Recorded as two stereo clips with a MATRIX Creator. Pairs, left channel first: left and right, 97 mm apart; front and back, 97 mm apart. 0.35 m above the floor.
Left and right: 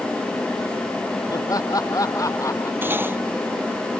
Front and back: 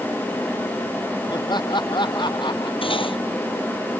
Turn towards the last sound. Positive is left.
turn(degrees=-25)